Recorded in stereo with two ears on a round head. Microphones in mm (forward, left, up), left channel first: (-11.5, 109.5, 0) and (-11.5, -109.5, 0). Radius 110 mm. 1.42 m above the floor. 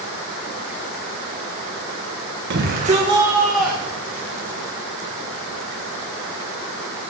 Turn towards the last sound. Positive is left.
turn(degrees=20)  # may be behind; listen again after turning